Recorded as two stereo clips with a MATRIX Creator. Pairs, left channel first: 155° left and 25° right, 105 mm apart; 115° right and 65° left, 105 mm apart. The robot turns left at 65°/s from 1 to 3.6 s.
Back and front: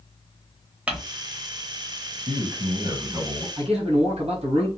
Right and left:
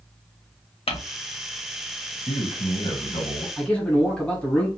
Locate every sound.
0.9 s crumpling: 100° right, 0.9 m
2.3 s a man speaking: 30° right, 1.5 m; by 3.5 s 110° right, 1.5 m
3.6 s a man speaking: 30° right, 1.3 m; by 4.7 s 35° right, 1.3 m